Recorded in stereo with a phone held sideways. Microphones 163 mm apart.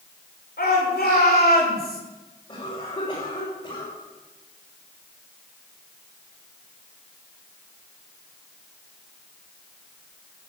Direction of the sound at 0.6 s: 75° left (ahead or behind).